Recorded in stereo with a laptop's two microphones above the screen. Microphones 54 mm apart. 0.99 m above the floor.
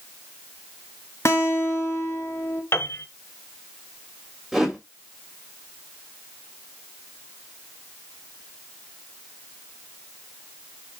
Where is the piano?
55° left (ahead or behind), 1.3 m.